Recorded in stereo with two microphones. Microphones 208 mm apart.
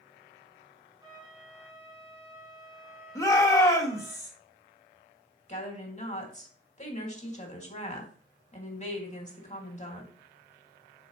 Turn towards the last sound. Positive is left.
turn(degrees=35)  # may be behind; listen again after turning